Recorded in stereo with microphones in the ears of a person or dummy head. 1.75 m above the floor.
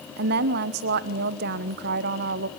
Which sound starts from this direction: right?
A woman speaking, at 0.2 s.